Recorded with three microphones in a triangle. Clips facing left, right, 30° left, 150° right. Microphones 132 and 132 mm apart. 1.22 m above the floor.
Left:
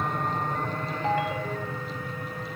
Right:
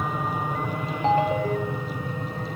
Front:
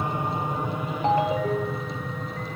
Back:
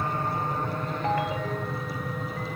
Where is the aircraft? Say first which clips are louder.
Right 1 dB, front 1 dB; 15° right; by 2.6 s 70° right.